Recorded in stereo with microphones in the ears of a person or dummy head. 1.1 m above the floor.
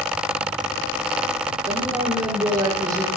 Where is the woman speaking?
20° right (ahead or behind), 3.5 m.